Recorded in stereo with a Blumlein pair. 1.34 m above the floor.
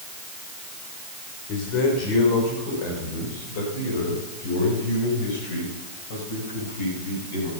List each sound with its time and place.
1.5 s a man speaking: 40° left, 4.5 m; by 7.5 s 55° left, 7.5 m